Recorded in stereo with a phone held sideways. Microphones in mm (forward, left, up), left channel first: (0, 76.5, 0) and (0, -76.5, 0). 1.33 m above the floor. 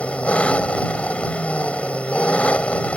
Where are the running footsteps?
No running footsteps in this recording.